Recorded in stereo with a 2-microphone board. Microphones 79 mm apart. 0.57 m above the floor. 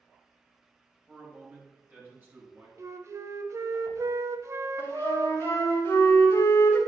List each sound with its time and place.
1.1 s a man speaking: 25° right (ahead or behind), 4.5 m; by 2.7 s 30° right (ahead or behind), 5.5 m
2.8 s a flute: 45° right (ahead or behind), 0.7 m
4.8 s a flute: 30° left (ahead or behind), 4 m